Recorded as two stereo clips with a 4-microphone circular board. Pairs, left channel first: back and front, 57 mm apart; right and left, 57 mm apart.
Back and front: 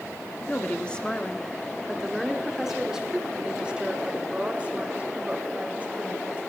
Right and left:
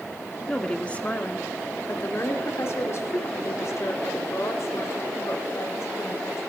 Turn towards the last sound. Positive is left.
turn(degrees=-60)